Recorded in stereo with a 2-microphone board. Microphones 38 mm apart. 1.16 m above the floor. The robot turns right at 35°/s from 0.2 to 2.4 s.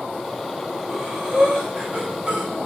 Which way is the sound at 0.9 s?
5° left (ahead or behind).